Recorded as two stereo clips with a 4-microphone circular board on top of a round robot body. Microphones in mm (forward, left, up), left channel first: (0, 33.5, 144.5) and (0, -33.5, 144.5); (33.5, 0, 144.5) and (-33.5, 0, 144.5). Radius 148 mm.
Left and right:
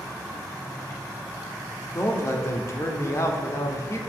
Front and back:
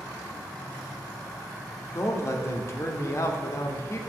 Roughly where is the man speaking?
Ahead left.